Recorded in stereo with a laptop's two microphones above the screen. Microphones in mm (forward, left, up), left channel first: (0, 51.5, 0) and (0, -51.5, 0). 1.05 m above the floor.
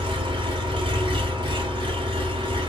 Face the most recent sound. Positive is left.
turn(degrees=-55)  # may be behind; listen again after turning